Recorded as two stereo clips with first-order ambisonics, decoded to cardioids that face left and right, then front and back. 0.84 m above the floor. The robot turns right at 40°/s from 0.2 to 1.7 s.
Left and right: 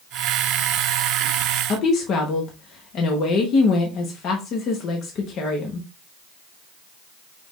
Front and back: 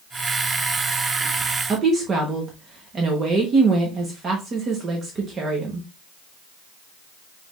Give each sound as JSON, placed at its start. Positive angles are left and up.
{"t": 1.7, "sound": "a woman speaking", "azimuth_deg": 120, "distance_m": 1.0}